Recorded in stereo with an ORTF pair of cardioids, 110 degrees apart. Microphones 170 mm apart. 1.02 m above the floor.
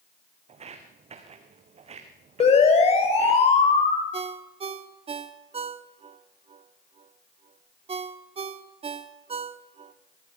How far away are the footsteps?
About 3.5 m.